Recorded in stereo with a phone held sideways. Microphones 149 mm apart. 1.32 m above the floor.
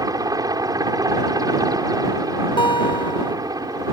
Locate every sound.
0.0 s a helicopter: 25° right (ahead or behind)
2.6 s a guitar: 35° left (ahead or behind)